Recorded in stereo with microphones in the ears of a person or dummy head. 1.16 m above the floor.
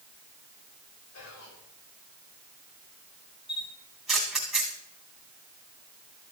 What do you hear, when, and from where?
1.1 s whispering: 70° left (ahead or behind), 5 m
3.5 s a camera shutter: centre (ahead or behind), 2.5 m